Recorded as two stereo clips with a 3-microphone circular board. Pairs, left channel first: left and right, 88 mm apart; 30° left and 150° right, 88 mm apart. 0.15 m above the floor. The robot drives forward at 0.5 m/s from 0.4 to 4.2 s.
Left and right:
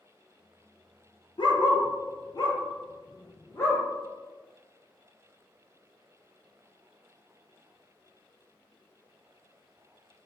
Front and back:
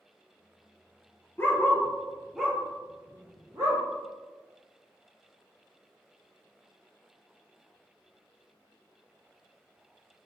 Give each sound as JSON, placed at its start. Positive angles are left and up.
{"t": 1.4, "sound": "a dog barking", "azimuth_deg": 90, "distance_m": 0.9}